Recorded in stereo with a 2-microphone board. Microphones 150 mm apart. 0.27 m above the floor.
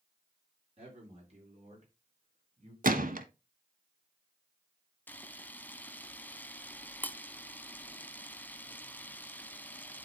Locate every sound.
0.8 s a man speaking: 45° right (ahead or behind), 5 m; by 2.7 s 50° right (ahead or behind), 3 m
2.8 s a gunshot: 70° right (ahead or behind), 0.8 m
5.1 s a camera shutter: 10° left (ahead or behind), 0.6 m